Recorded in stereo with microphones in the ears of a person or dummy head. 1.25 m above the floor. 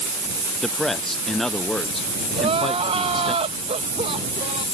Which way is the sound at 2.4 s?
35° right (ahead or behind).